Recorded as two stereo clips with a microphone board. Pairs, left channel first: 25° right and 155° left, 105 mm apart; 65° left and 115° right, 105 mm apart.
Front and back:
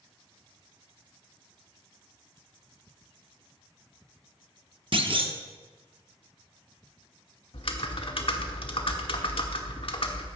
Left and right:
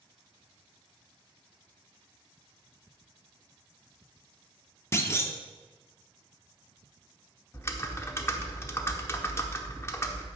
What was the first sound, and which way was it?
A clunk, 130° left.